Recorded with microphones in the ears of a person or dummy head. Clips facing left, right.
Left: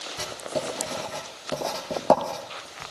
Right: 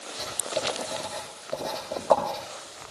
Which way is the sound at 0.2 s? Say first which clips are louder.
Left 1 dB; 80° left.